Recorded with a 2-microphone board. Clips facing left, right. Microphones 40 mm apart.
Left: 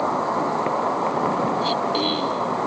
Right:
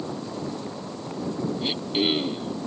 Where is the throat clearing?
15° right (ahead or behind).